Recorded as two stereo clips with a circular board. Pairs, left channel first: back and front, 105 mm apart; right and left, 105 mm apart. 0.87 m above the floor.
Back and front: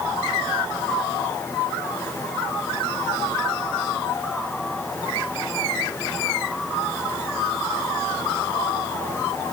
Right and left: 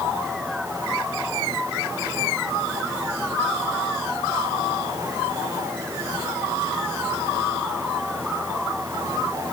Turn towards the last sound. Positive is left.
No sound to turn to.